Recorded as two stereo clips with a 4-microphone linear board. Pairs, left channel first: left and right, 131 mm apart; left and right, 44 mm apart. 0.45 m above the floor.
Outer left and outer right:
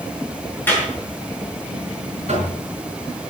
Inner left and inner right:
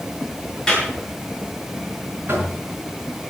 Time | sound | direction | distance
0.7 | a clap | 15° left (ahead or behind) | 6 m
2.3 | knocking | 55° right (ahead or behind) | 5 m